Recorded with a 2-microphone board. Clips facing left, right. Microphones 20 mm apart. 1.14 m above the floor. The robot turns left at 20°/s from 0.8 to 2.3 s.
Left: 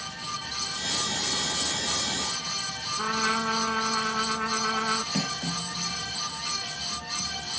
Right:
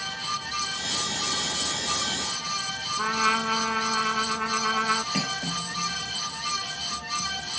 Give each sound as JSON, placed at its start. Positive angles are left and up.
{"t": 3.0, "sound": "a trumpet", "side_deg": -45}
{"t": 5.1, "sound": "cutlery clinking", "side_deg": -80}